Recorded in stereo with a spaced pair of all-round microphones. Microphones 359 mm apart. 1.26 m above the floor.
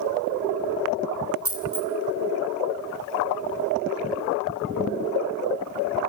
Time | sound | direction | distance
1.4 | a dropped coin | 40° right (ahead or behind) | 2 m